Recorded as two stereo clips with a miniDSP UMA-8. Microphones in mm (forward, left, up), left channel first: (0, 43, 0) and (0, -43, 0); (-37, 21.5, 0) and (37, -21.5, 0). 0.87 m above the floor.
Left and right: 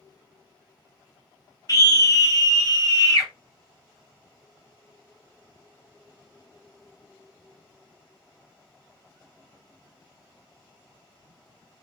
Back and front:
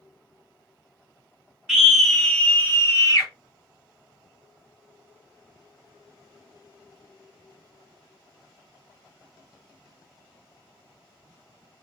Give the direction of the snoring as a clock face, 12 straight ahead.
I don't hear snoring.